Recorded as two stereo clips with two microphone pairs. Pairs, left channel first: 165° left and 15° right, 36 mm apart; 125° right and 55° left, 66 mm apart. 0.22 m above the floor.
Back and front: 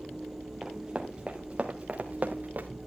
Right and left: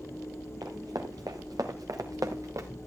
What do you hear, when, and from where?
0.6 s running footsteps: 60° left, 3 m; by 2.7 s 20° left, 2 m